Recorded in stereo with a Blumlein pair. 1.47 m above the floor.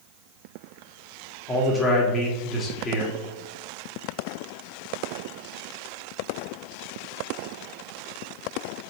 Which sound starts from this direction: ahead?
A man speaking, at 1.5 s.